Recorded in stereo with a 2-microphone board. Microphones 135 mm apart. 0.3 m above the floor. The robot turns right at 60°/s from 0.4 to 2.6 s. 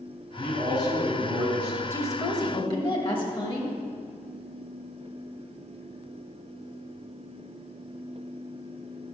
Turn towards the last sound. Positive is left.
turn(degrees=70)